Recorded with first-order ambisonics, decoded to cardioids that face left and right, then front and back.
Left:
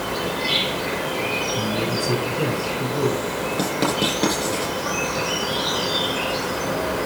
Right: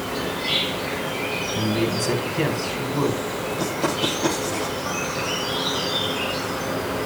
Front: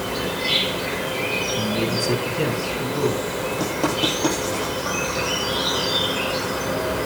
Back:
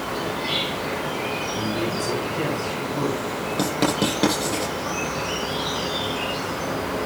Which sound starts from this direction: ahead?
An insect, at 0.0 s.